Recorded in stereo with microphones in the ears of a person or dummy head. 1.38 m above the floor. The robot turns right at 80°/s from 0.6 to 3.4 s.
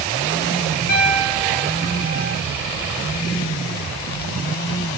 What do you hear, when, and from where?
0.9 s a piano: 125° left, 1.7 m; by 2.4 s 115° right, 1.7 m